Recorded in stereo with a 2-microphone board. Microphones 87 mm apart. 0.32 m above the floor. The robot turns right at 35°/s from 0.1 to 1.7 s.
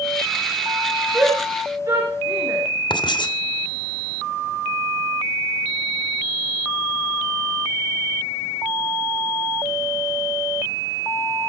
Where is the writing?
60° left (ahead or behind), 2 m.